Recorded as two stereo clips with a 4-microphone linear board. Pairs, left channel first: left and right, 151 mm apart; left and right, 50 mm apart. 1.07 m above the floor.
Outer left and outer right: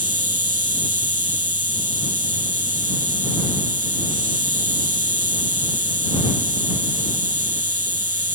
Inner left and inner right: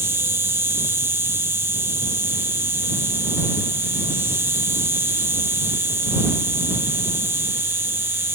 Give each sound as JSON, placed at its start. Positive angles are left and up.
{"t": 0.0, "sound": "an insect", "side_deg": -60}